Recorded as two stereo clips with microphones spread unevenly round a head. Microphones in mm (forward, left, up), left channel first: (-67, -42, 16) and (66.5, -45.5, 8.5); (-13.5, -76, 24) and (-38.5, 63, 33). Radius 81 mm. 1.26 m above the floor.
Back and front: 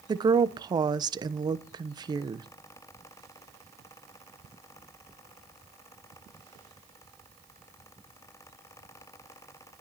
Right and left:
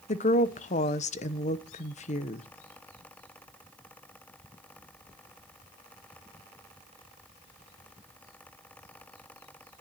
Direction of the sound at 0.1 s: 55° right.